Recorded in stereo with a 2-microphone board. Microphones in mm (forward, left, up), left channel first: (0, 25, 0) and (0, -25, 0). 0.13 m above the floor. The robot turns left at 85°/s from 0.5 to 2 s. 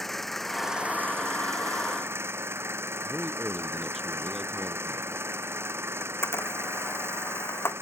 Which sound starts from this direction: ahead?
An engine running, at 0.0 s.